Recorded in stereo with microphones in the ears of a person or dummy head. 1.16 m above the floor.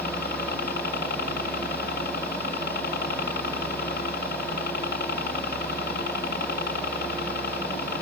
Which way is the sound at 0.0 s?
55° left (ahead or behind).